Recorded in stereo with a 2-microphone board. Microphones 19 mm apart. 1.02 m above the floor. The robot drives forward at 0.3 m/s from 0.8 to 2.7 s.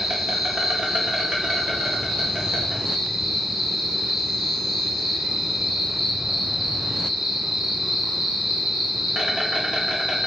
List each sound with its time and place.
0.0 s an insect: 70° right (ahead or behind), 1.4 m; by 10.3 s 55° right (ahead or behind), 1.6 m